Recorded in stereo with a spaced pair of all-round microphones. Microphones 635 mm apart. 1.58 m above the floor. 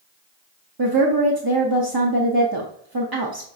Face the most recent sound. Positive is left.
turn(degrees=-35)  # may be behind; listen again after turning